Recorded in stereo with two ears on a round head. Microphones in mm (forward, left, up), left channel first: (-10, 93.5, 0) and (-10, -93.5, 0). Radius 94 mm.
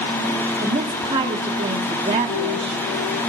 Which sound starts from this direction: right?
A woman speaking, at 0.6 s.